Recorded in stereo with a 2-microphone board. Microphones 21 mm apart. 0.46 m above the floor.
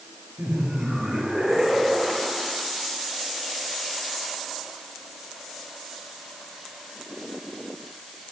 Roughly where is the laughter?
Right.